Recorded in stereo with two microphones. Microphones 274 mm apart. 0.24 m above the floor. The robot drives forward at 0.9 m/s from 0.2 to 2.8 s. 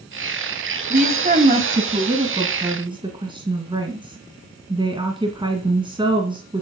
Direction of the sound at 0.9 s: 35° right (ahead or behind).